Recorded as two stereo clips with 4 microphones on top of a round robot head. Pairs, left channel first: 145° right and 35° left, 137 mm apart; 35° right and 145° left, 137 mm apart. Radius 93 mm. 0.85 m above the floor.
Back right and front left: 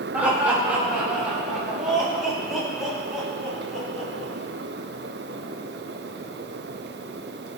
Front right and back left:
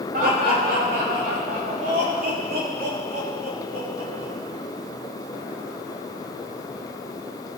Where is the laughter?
115° left, 5.5 m; by 4.3 s 125° left, 9.5 m.